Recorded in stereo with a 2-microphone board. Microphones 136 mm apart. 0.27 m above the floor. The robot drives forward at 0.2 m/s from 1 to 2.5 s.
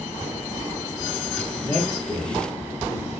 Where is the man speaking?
15° right (ahead or behind), 3 m; by 3.2 s 10° right (ahead or behind), 3 m.